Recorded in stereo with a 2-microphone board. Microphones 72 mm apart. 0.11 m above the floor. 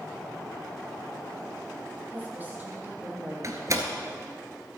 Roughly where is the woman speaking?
Right.